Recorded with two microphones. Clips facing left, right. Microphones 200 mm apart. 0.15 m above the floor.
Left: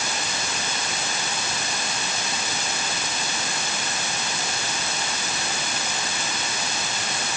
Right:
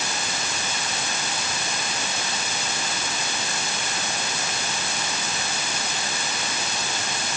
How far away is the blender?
No blender in this recording.